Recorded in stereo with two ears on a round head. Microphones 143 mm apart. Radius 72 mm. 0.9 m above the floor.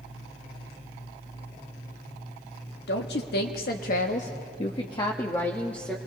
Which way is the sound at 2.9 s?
75° left (ahead or behind).